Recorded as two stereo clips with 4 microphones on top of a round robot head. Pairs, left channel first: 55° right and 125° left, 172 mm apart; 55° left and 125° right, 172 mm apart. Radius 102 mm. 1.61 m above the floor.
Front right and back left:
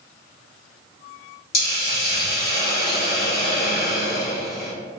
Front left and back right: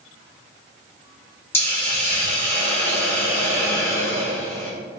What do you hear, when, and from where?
1.5 s a hiss: 20° right, 1.1 m